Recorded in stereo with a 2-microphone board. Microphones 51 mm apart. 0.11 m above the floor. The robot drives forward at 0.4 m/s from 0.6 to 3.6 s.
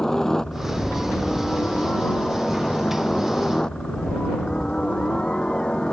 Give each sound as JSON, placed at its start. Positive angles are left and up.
{"t": 0.0, "sound": "a helicopter", "side_deg": 10}